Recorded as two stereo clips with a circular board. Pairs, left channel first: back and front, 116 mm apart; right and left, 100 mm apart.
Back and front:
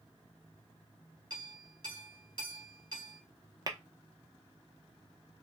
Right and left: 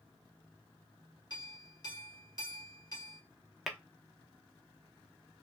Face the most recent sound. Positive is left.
turn(degrees=5)